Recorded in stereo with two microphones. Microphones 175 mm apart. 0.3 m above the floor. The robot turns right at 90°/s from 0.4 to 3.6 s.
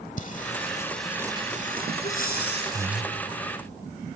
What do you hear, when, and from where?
0.2 s singing: 50° left (ahead or behind), 0.9 m; by 3.0 s centre (ahead or behind), 0.9 m
2.0 s breathing: 40° left, 2 m; by 2.7 s 105° left, 2 m